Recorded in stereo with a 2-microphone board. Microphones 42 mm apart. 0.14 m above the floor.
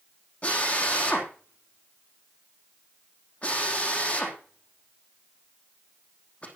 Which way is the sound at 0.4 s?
30° left (ahead or behind).